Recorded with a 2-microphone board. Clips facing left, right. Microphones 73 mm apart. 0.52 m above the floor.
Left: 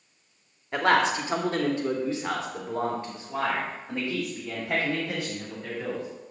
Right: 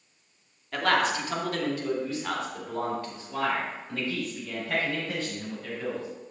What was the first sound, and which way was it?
A man speaking, 25° left (ahead or behind).